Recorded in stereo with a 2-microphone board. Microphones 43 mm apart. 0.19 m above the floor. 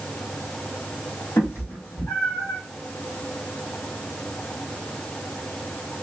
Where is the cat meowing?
75° left (ahead or behind), 1.4 m.